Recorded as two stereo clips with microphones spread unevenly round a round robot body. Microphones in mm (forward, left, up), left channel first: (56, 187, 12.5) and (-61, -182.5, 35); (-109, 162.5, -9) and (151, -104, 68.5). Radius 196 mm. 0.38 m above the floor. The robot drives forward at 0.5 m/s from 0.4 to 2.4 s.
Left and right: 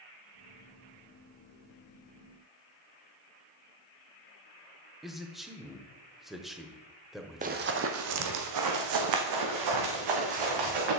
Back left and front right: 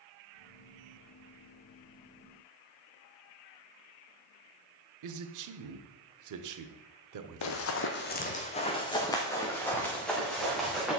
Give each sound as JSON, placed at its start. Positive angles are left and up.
{"t": 5.0, "sound": "a man speaking", "azimuth_deg": -15, "distance_m": 1.1}
{"t": 7.4, "sound": "running footsteps", "azimuth_deg": -175, "distance_m": 0.9}